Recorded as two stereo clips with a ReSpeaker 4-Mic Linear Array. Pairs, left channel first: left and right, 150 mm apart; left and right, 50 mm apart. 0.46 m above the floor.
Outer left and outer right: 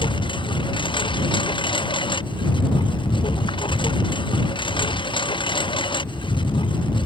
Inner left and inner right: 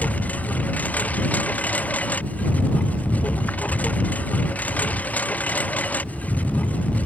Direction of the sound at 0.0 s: 35° left (ahead or behind).